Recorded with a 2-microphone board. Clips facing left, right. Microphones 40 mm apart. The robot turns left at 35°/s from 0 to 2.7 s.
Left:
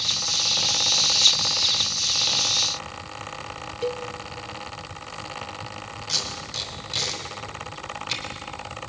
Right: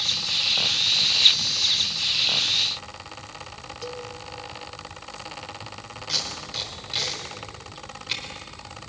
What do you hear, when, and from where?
3.8 s a cowbell: 35° left (ahead or behind), 0.7 m
6.1 s tape being pulled: 10° right (ahead or behind), 4 m